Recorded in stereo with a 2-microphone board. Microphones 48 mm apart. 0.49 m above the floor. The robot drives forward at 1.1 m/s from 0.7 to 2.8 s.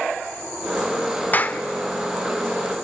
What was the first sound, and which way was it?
A clap, 35° left (ahead or behind).